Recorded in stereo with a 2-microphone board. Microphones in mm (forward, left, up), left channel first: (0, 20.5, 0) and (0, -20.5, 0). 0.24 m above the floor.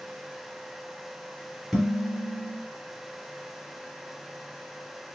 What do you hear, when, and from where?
1.7 s dishes clattering: centre (ahead or behind), 1.5 m